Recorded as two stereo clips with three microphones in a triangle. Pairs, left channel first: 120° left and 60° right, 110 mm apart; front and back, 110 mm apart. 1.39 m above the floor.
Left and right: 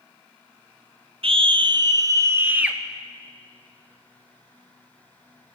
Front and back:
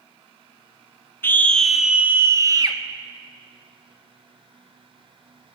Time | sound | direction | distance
1.2 | a scream | 65° right | 0.7 m